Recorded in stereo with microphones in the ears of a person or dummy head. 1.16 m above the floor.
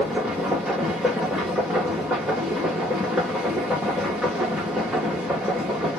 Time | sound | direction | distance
0.0 | a machine running | 5° right (ahead or behind) | 1.0 m